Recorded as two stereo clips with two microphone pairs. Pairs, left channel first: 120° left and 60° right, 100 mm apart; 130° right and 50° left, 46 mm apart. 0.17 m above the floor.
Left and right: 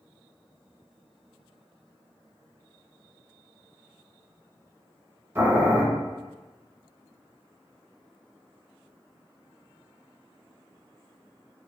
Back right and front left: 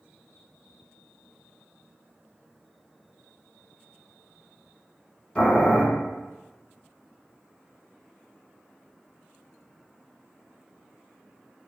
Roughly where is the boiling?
Right.